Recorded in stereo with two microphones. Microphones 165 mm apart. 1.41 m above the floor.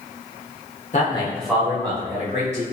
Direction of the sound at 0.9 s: 50° left (ahead or behind).